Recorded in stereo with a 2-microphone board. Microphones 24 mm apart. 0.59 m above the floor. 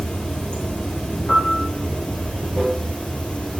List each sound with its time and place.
0.0 s running water: 65° left (ahead or behind), 1.4 m
1.3 s a piano: 80° left, 2.5 m